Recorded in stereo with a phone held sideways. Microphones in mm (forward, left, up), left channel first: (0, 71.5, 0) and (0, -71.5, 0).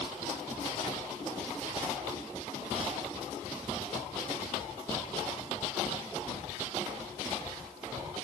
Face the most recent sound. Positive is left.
No sound to turn to.